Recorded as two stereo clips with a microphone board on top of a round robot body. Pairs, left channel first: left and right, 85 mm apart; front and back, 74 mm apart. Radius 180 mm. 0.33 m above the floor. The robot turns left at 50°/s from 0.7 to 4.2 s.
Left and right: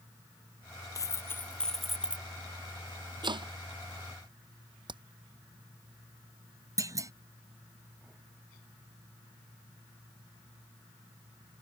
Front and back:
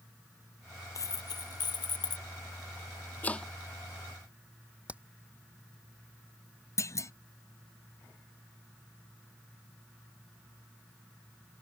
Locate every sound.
0.9 s a dropped coin: 45° left; by 2.2 s 20° right
3.2 s chopping: 65° right; by 3.5 s 80° right
4.9 s hammering: 105° right
6.8 s a clunk: 45° right